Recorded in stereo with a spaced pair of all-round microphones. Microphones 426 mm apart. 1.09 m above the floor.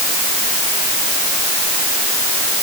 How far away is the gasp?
I don't hear a gasp.